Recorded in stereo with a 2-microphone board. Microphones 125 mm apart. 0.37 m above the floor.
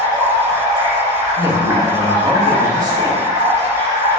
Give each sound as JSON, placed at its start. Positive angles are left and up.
{"t": 0.0, "sound": "running water", "side_deg": -30, "distance_m": 1.9}
{"t": 1.4, "sound": "a man speaking", "side_deg": -35, "distance_m": 1.0}